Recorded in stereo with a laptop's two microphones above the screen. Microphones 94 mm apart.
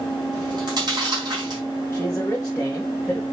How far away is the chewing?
About 4.5 m.